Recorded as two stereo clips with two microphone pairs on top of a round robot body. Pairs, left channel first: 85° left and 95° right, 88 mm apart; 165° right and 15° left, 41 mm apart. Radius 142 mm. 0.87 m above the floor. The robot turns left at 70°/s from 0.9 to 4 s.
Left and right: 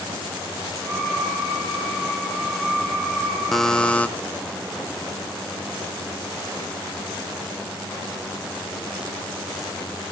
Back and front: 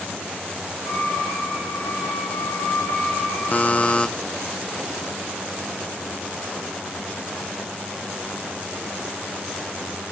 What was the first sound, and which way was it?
A buzzer, 170° left.